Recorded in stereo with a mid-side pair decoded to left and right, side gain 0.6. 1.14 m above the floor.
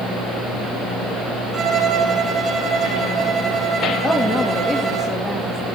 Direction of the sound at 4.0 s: 25° left.